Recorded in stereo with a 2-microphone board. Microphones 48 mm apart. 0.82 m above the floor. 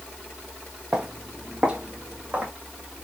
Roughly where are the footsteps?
Centre.